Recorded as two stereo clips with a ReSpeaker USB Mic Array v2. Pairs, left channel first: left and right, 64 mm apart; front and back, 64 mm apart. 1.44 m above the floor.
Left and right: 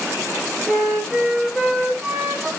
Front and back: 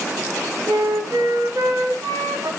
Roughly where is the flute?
Behind.